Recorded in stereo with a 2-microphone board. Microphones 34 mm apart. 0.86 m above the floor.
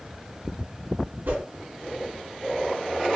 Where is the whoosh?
80° right, 2 m.